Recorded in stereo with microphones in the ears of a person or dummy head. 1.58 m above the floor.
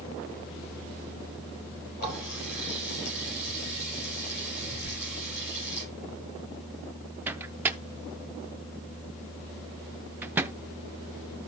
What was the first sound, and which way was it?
A running tap, 50° left (ahead or behind).